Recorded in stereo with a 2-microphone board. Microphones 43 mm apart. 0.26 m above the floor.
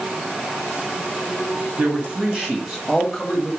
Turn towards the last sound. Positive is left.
turn(degrees=10)  # may be behind; listen again after turning